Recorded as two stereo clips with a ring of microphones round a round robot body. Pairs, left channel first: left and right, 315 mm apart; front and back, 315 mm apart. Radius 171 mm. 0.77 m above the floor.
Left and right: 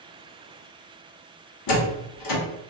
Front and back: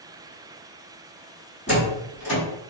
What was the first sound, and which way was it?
A door slam, 70° left.